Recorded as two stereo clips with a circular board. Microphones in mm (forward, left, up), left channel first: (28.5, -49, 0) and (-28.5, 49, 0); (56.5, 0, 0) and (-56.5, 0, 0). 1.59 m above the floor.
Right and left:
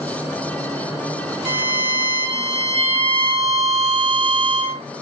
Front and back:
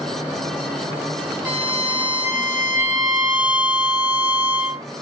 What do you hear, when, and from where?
1.4 s a violin: 105° left, 0.9 m